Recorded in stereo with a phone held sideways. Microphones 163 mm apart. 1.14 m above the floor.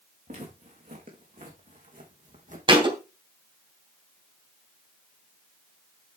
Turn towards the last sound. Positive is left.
turn(degrees=-35)  # may be behind; listen again after turning